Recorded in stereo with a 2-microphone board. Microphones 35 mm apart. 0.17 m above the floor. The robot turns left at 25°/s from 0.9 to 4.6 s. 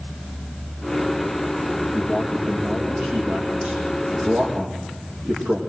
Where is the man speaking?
5° left, 6.5 m; by 5.6 s 60° right, 6.5 m.